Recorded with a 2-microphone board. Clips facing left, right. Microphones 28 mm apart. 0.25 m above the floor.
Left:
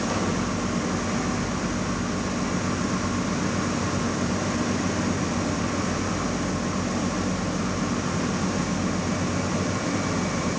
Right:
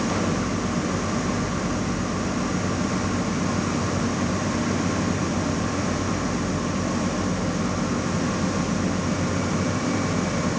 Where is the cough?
No cough in this recording.